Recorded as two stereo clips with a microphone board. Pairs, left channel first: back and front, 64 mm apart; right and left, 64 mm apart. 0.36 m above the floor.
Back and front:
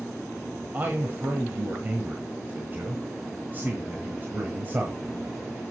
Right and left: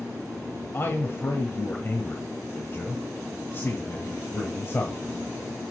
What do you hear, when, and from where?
0.7 s a man speaking: 50° right, 1.4 m